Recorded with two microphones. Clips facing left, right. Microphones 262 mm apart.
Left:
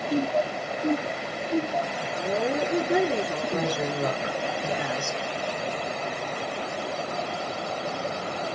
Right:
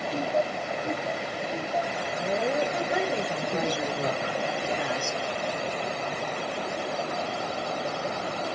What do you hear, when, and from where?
0.1 s laughter: 75° left (ahead or behind), 2.5 m; by 2.1 s 70° left (ahead or behind), 3.5 m
2.2 s a woman speaking: 50° left (ahead or behind), 3 m
3.5 s a woman speaking: 60° left (ahead or behind), 3 m